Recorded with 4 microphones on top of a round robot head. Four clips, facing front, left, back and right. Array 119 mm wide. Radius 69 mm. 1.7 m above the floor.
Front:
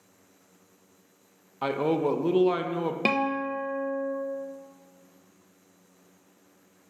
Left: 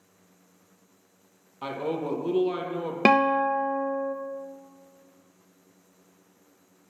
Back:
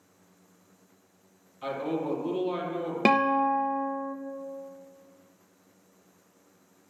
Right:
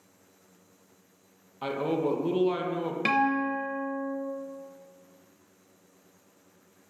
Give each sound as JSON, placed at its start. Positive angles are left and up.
{"t": 1.6, "sound": "a man speaking", "azimuth_deg": 5, "distance_m": 1.4}
{"t": 3.0, "sound": "a guitar", "azimuth_deg": 100, "distance_m": 0.9}